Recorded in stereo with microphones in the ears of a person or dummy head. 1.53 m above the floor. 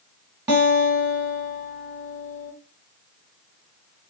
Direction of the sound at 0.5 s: 20° right (ahead or behind).